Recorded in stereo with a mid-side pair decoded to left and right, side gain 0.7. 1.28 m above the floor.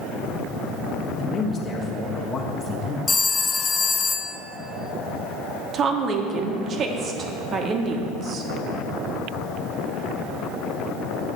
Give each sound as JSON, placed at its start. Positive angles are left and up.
{"t": 1.2, "sound": "a man speaking", "azimuth_deg": 30, "distance_m": 1.4}
{"t": 3.1, "sound": "a phone ringing", "azimuth_deg": 25, "distance_m": 0.5}
{"t": 5.7, "sound": "a woman speaking", "azimuth_deg": -40, "distance_m": 1.1}